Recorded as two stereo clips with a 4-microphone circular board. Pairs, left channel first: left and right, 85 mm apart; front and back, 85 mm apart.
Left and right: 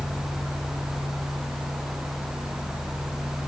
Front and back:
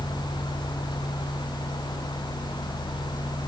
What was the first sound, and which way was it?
Only background noise.